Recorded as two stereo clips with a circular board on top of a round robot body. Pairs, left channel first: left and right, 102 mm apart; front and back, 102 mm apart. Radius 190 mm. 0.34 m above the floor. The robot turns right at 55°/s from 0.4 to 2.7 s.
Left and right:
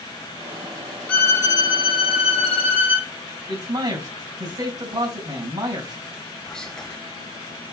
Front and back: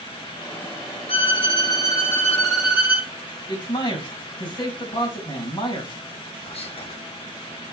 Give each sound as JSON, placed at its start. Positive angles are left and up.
{"t": 1.1, "sound": "a violin", "azimuth_deg": 15, "distance_m": 2.0}
{"t": 3.5, "sound": "a man speaking", "azimuth_deg": -40, "distance_m": 4.0}
{"t": 6.4, "sound": "whispering", "azimuth_deg": 5, "distance_m": 3.0}